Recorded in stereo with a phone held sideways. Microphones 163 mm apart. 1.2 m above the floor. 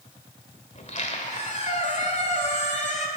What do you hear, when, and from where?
0.8 s a squeak: 45° left (ahead or behind), 1.9 m